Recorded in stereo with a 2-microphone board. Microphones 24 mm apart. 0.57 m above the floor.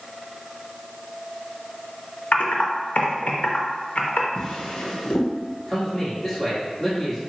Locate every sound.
2.3 s typing on a keyboard: 85° left, 0.6 m
4.3 s a drawer: 45° left (ahead or behind), 0.8 m
5.7 s a man speaking: 5° left (ahead or behind), 1.1 m